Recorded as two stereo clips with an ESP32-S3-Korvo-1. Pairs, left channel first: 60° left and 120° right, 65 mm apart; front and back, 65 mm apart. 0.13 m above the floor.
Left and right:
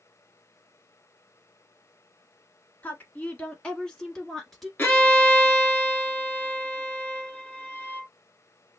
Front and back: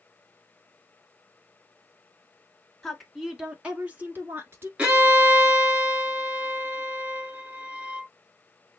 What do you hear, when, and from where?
2.8 s a woman speaking: 75° left, 1.1 m; by 4.7 s 150° left, 1.5 m
4.8 s a violin: 115° left, 1.3 m